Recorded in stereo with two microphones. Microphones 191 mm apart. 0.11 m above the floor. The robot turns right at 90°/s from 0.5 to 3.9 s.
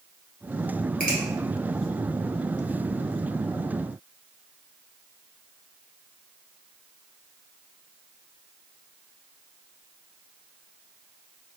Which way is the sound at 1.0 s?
45° right (ahead or behind).